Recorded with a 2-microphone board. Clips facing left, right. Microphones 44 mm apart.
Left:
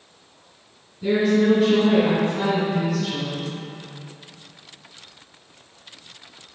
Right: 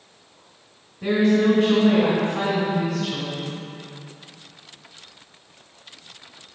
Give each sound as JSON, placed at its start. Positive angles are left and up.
{"t": 1.0, "sound": "a woman speaking", "side_deg": -65, "distance_m": 2.5}